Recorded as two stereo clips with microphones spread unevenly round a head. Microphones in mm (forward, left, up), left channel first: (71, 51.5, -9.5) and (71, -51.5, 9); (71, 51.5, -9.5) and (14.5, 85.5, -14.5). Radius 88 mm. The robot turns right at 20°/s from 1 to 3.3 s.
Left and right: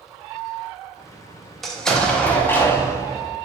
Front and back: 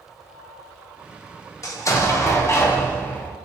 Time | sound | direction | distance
1.6 | an explosion | 5° right | 0.5 m